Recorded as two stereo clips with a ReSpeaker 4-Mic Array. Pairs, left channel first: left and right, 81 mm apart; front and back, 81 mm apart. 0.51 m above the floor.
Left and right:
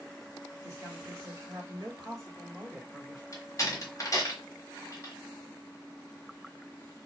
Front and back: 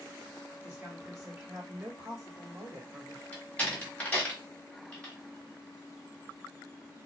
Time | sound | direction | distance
0.6 | a woman speaking | 120° right | 1.5 m
3.3 | a door slam | 65° left | 1.0 m